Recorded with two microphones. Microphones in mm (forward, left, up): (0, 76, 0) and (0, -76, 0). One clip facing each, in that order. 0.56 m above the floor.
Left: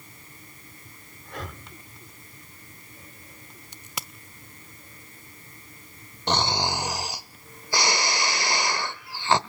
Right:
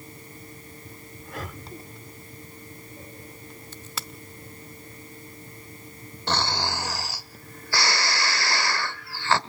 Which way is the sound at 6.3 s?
20° left (ahead or behind).